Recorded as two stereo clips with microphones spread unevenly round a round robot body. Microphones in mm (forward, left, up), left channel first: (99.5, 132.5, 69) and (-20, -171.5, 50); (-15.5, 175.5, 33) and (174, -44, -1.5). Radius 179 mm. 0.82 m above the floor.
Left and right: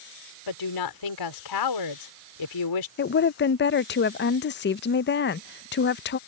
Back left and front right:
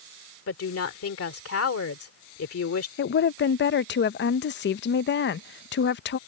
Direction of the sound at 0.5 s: 90° left.